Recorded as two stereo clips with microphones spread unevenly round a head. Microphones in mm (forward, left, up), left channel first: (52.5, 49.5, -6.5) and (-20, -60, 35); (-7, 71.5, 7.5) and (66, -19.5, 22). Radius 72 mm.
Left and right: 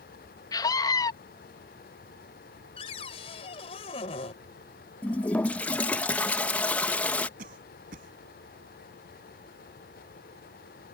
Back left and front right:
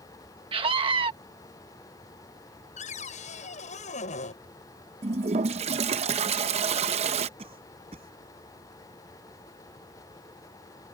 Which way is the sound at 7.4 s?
105° right.